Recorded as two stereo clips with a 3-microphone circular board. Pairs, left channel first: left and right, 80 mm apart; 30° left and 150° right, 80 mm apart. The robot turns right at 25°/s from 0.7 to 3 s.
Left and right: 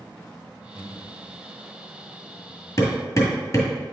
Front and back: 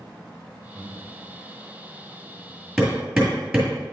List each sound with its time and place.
0.8 s breathing: straight behind, 1.6 m; by 1.2 s 170° right, 1.6 m
2.8 s hammering: 125° left, 1.8 m; by 3.8 s 130° left, 1.8 m